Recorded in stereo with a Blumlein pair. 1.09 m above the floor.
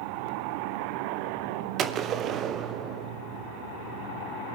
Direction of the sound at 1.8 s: 30° right.